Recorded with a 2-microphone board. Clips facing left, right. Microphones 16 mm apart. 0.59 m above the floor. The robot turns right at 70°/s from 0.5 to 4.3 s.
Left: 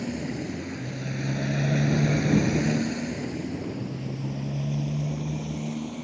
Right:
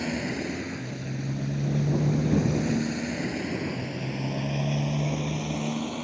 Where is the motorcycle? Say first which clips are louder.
Right 2 dB; 35° right (ahead or behind); by 6.0 s 45° right (ahead or behind).